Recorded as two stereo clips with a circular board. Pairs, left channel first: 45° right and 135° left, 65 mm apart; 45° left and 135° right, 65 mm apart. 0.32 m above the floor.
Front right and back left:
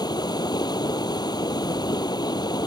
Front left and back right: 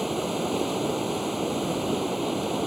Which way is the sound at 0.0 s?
50° right.